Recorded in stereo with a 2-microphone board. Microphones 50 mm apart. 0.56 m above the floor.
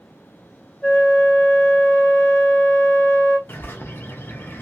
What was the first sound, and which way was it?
A flute, 15° left (ahead or behind).